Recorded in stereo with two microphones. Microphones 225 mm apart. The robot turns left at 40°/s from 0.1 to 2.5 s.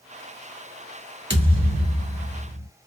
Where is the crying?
I don't hear crying.